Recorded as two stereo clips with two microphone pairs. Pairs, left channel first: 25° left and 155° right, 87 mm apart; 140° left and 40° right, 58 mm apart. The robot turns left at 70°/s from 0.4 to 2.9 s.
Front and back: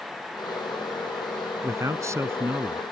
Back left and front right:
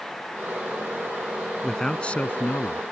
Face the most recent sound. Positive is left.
turn(degrees=135)